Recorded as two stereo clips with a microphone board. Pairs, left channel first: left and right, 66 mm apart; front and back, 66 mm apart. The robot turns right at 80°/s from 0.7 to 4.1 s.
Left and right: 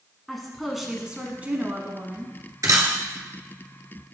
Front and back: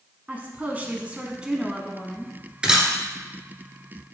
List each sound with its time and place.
0.3 s a woman speaking: straight behind, 1.0 m; by 2.4 s 50° right, 1.0 m
2.6 s a camera shutter: 105° right, 1.3 m; by 2.9 s 85° right, 1.3 m